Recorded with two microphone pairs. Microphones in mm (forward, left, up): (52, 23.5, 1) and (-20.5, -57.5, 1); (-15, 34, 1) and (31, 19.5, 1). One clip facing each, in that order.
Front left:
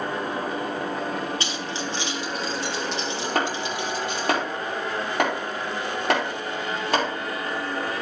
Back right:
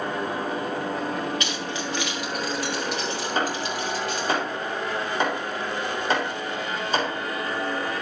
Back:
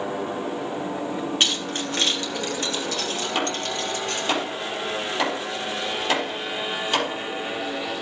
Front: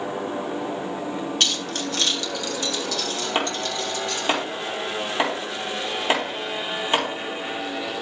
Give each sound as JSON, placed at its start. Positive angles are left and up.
{"t": 1.4, "sound": "keys jangling", "azimuth_deg": 100, "distance_m": 1.6}
{"t": 3.4, "sound": "chopping", "azimuth_deg": 45, "distance_m": 4.5}